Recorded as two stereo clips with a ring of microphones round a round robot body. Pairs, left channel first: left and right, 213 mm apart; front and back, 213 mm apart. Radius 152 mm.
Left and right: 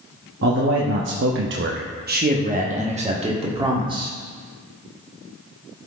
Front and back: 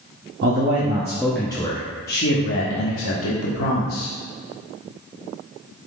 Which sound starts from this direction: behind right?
A man speaking, at 0.4 s.